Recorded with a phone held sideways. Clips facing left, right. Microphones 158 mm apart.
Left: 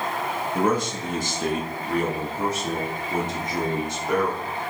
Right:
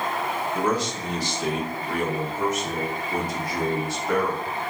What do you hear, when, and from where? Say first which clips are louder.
0.6 s a man speaking: left 3 dB; 55° left (ahead or behind), 1.7 m; by 4.5 s 15° left (ahead or behind), 2.5 m